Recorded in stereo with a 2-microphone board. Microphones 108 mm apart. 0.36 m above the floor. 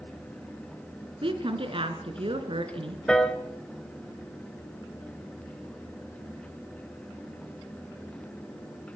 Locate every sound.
1.2 s a woman speaking: 55° right (ahead or behind), 4 m
3.1 s a piano: 5° left (ahead or behind), 1.8 m